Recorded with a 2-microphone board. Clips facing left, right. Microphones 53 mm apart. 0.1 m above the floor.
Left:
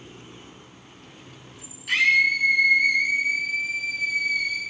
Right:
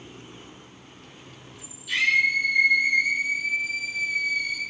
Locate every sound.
1.9 s a scream: 55° left (ahead or behind), 2.5 m